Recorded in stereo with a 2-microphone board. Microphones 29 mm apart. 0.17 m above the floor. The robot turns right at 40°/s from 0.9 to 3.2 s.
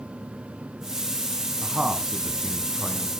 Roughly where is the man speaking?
Ahead right.